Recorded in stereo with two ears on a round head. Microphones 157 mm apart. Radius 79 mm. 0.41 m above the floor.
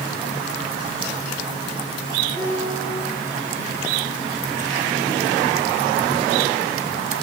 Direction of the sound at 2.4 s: 15° left (ahead or behind).